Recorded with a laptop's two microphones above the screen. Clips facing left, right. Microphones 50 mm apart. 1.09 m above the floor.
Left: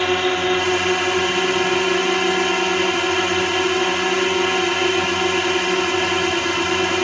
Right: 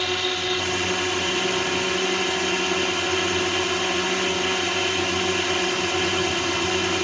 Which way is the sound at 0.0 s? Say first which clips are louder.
Left 7 dB; 35° left (ahead or behind).